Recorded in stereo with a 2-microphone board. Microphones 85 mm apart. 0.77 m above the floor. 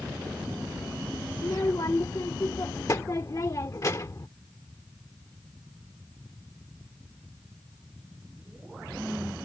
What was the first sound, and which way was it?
A child speaking, 45° left (ahead or behind).